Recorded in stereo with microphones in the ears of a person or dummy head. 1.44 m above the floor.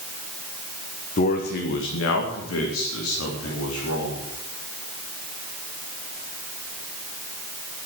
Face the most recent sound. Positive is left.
turn(degrees=90)